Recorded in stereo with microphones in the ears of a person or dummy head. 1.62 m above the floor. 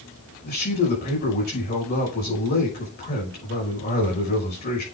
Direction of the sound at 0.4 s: 50° left (ahead or behind).